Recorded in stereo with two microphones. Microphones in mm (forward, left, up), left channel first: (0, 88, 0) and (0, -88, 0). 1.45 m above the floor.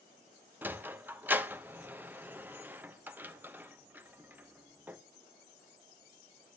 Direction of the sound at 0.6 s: 10° right (ahead or behind).